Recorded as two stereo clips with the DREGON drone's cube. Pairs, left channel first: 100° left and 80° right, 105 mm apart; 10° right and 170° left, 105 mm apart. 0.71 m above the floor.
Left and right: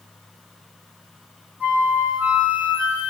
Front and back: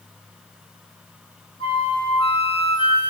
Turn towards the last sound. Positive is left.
turn(degrees=-5)